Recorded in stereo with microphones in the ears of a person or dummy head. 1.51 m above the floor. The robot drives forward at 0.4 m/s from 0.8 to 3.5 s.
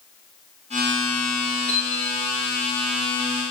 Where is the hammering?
20° left (ahead or behind), 10 m.